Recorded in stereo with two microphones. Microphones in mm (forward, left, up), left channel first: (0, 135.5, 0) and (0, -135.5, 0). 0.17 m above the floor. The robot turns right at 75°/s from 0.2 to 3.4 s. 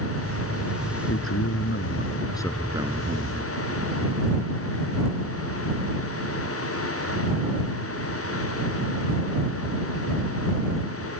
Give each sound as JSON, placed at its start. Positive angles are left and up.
{"t": 1.1, "sound": "a man speaking", "azimuth_deg": 65}